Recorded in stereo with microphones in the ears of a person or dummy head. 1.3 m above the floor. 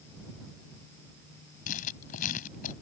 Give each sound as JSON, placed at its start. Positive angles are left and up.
{"t": 1.7, "sound": "writing", "side_deg": 45}